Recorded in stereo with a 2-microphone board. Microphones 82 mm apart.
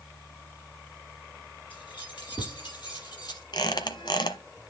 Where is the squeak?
65° left (ahead or behind), 1.3 m.